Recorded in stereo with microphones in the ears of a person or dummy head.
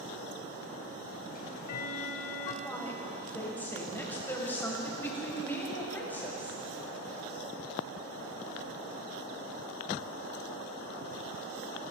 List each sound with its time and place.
1.3 s ticking: 45° left (ahead or behind), 0.7 m
2.6 s a woman speaking: 10° left (ahead or behind), 1.7 m